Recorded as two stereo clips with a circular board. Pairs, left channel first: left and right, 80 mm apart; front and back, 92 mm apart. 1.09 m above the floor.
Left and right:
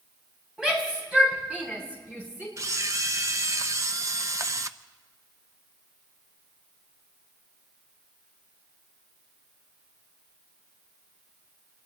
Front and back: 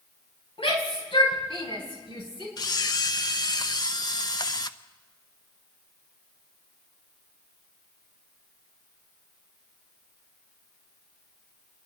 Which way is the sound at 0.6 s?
10° right.